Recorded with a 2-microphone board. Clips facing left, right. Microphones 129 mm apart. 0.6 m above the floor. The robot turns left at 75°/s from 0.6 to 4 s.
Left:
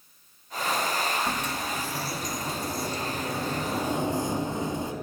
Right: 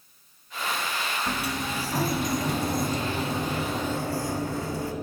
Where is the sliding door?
Straight ahead, 0.7 m; by 4.9 s 155° left, 0.7 m.